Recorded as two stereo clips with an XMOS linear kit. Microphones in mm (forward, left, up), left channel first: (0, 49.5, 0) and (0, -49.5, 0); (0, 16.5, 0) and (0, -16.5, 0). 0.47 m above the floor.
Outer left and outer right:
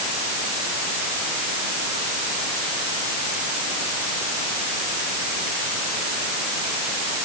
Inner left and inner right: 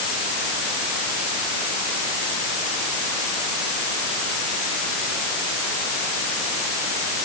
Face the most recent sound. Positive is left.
No sound to turn to.